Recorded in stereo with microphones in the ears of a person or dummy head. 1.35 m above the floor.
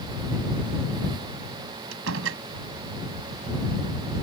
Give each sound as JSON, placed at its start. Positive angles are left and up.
{"t": 1.9, "sound": "a door slam", "side_deg": -75}